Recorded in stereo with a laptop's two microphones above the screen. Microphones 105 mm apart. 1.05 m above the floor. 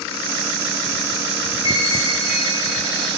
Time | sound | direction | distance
1.6 | a chime | 60° left (ahead or behind) | 4 m